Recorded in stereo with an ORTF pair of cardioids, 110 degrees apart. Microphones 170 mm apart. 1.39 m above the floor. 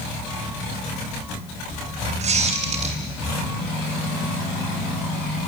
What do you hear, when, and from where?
2.2 s a squeak: 45° right, 6.5 m